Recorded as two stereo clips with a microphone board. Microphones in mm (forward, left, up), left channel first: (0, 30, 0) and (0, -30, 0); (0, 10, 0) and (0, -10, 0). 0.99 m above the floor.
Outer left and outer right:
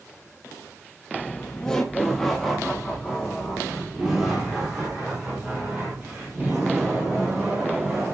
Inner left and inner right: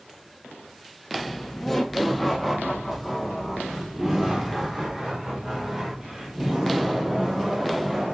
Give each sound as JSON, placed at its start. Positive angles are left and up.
{"t": 1.2, "sound": "laughter", "side_deg": 25, "distance_m": 0.9}